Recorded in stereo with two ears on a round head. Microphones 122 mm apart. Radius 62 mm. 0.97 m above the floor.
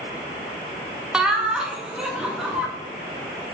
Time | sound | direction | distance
1.1 | laughter | 5° right (ahead or behind) | 0.6 m